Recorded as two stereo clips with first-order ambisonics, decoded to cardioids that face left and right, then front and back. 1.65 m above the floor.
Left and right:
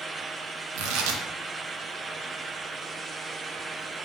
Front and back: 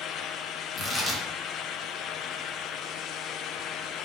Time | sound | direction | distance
0.8 | tearing paper | 75° right | 0.6 m